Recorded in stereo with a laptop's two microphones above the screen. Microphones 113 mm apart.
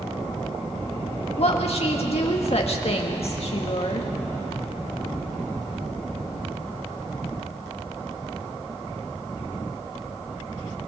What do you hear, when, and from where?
1.4 s a woman speaking: 55° left (ahead or behind), 1.4 m